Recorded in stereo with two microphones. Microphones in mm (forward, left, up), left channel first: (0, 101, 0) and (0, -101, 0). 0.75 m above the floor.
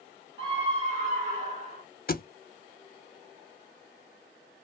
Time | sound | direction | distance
0.4 | a scream | 25° right (ahead or behind) | 1.5 m
2.1 | a thud | 45° left (ahead or behind) | 0.6 m